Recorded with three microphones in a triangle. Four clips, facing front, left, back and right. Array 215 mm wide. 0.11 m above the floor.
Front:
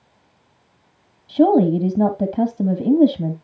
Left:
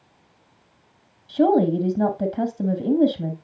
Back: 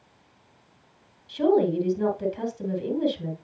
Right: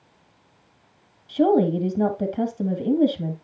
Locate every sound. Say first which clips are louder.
1.3 s a woman speaking: left 1 dB, front 7 dB; straight ahead, 3 m